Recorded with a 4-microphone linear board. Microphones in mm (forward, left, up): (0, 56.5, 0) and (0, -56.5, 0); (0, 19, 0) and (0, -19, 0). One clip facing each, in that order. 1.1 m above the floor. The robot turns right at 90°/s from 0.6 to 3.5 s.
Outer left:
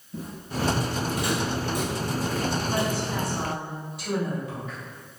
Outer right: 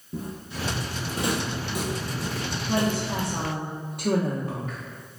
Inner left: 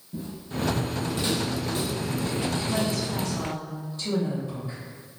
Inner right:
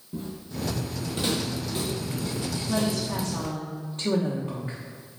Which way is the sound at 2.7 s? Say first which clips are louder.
Outer right 1 dB, even; 130° right.